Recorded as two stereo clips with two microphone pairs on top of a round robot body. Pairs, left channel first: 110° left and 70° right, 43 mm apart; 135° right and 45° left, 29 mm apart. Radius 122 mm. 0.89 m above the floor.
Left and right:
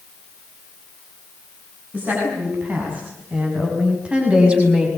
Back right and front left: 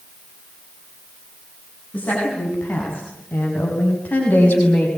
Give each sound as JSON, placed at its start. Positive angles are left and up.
{"t": 1.9, "sound": "a woman speaking", "azimuth_deg": -115, "distance_m": 8.5}